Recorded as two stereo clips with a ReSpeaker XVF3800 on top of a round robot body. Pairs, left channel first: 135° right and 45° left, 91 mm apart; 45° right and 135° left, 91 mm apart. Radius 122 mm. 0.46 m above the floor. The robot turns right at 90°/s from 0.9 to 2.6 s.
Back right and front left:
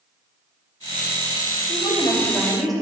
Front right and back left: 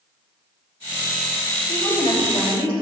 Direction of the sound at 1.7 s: 130° right.